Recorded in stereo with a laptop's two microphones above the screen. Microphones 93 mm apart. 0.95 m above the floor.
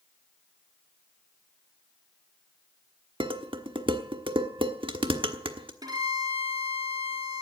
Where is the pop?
No pop in this recording.